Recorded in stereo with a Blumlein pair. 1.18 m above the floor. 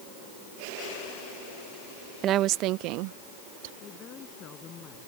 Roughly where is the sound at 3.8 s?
Ahead left.